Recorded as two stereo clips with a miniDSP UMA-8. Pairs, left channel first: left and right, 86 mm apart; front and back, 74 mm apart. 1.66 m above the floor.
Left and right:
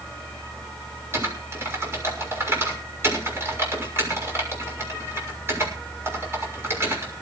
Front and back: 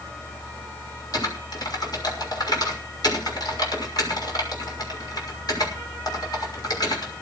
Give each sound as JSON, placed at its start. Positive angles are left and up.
{"t": 1.1, "sound": "typing on a keyboard", "azimuth_deg": -30, "distance_m": 6.0}